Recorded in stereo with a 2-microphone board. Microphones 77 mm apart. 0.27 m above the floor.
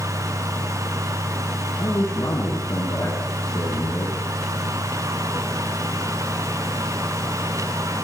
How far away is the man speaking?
About 3.5 m.